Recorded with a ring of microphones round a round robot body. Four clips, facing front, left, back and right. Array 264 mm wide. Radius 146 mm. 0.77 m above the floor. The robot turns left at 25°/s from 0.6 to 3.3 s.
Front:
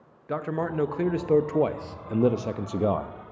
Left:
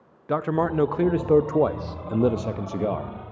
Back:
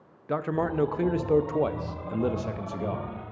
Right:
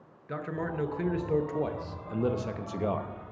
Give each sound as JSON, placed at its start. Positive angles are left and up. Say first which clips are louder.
{"t": 0.3, "sound": "a man speaking", "louder": "left 11 dB, back 1 dB", "azimuth_deg": 95, "distance_m": 0.8}